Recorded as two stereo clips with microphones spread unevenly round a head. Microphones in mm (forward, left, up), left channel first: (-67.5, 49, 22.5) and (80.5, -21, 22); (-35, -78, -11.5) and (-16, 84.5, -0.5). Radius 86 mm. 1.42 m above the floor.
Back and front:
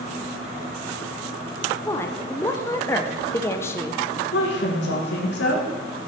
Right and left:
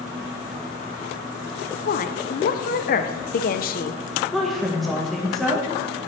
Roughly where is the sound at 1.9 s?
Behind right.